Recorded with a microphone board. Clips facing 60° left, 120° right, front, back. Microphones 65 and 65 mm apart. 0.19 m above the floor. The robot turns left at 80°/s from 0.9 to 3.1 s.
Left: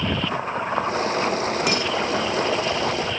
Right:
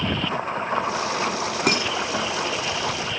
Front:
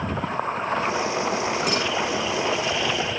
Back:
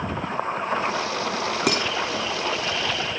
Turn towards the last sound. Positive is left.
turn(degrees=90)